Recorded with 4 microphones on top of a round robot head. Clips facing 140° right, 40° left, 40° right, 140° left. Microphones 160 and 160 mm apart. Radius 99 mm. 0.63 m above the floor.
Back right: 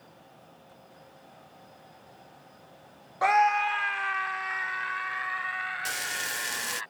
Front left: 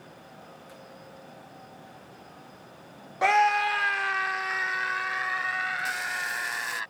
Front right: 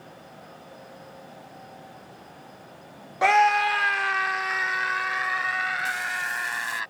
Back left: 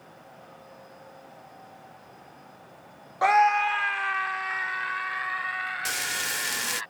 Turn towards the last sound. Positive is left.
turn(degrees=160)